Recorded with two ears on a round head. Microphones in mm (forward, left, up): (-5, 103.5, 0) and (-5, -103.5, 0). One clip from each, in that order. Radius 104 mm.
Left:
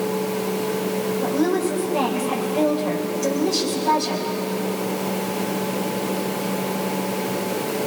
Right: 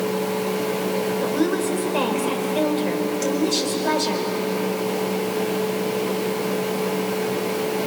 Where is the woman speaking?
60° right (ahead or behind), 4.5 m.